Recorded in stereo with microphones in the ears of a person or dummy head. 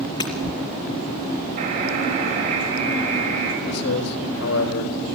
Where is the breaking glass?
30° left (ahead or behind), 3 m.